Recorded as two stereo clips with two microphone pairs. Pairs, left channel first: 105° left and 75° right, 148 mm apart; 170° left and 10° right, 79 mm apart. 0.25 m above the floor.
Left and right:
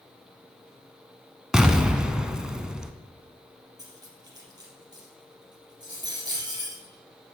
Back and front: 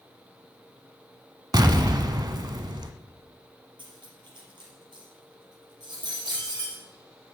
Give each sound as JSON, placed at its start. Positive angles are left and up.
{"t": 1.5, "sound": "an explosion", "azimuth_deg": 10, "distance_m": 0.8}
{"t": 3.8, "sound": "cutlery clinking", "azimuth_deg": -10, "distance_m": 3.0}